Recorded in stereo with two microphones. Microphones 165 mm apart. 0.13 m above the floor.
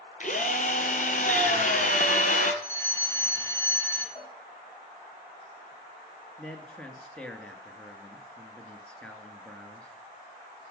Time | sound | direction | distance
0.2 | a drill | 50° left (ahead or behind) | 1.5 m
2.6 | a fire alarm | 10° left (ahead or behind) | 2.5 m
4.2 | a cowbell | 35° left (ahead or behind) | 5.5 m
6.4 | a man speaking | 5° left (ahead or behind) | 1.5 m